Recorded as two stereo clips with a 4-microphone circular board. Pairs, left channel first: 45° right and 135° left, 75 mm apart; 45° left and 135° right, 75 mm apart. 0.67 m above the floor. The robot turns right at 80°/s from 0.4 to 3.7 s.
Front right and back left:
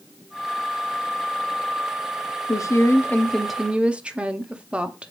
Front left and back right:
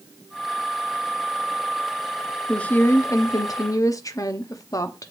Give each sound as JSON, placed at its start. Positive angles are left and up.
{"t": 2.5, "sound": "a woman speaking", "azimuth_deg": -35, "distance_m": 0.7}